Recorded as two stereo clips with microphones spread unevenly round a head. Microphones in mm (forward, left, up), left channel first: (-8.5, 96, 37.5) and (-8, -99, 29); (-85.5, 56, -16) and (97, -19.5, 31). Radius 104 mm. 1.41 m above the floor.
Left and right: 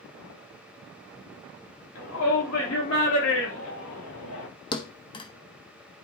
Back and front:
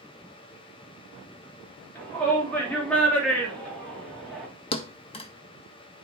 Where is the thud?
105° left, 0.7 m.